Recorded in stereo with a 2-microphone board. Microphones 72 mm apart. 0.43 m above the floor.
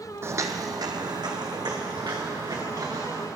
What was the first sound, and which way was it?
Footsteps, 35° right (ahead or behind).